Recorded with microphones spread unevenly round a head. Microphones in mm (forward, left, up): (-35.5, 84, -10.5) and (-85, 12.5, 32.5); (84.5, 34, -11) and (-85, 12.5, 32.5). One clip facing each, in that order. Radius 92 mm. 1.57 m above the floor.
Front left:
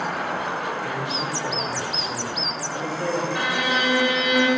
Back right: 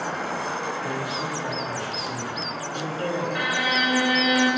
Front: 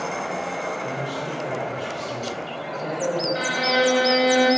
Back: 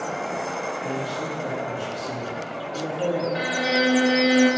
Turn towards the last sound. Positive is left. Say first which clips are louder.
# front left 1 dB, front 1 dB
turn(degrees=125)